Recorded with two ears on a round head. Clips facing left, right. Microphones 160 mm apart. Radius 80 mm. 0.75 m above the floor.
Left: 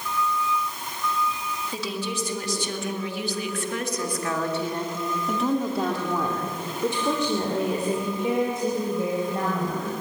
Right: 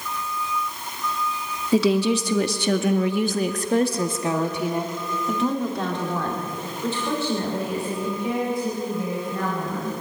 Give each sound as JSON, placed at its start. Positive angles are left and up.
{"t": 1.7, "sound": "a woman speaking", "side_deg": -60, "distance_m": 1.9}